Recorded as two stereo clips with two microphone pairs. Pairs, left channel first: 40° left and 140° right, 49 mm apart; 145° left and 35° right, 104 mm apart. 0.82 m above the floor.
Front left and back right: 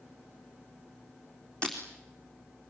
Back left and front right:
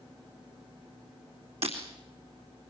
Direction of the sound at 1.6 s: 25° right.